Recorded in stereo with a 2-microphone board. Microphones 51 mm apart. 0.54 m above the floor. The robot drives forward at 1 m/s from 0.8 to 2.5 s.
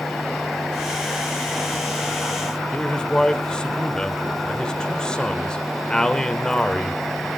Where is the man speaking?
15° left (ahead or behind), 1.5 m.